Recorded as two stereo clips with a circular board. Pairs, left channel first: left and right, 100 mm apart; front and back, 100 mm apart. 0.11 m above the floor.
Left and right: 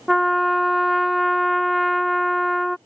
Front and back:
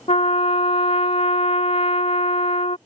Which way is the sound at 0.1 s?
Straight ahead.